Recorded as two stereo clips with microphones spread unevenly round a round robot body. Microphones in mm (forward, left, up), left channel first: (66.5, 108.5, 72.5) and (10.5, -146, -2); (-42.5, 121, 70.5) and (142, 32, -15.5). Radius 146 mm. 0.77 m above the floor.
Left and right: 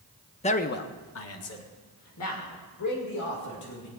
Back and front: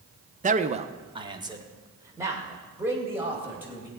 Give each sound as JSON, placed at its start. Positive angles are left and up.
{"t": 0.4, "sound": "a man speaking", "azimuth_deg": 0, "distance_m": 0.9}